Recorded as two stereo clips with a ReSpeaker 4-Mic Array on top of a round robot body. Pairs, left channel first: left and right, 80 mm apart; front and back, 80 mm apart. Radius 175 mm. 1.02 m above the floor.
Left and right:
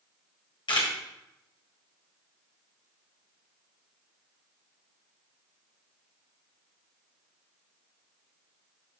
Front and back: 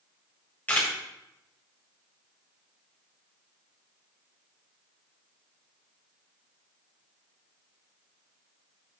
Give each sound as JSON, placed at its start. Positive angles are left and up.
{"t": 0.7, "sound": "a camera shutter", "azimuth_deg": 70, "distance_m": 1.6}